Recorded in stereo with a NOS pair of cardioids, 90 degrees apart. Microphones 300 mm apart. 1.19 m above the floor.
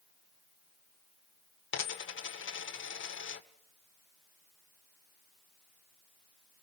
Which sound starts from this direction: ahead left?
A dropped coin, at 1.7 s.